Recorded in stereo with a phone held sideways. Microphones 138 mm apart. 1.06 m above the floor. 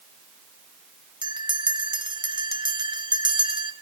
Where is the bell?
35° right (ahead or behind), 0.7 m.